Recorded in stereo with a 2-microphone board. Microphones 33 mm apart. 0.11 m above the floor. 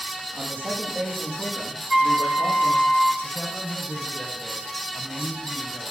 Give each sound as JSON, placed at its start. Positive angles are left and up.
{"t": 0.3, "sound": "a man speaking", "side_deg": -75, "distance_m": 6.0}
{"t": 1.9, "sound": "a flute", "side_deg": 0, "distance_m": 1.7}
{"t": 3.2, "sound": "a man speaking", "side_deg": 20, "distance_m": 6.5}